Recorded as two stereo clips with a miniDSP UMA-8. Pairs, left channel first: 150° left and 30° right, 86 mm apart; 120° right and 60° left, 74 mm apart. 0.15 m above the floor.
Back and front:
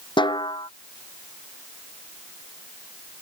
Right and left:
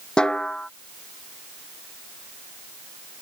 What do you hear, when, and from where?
0.2 s a snare drum: 160° left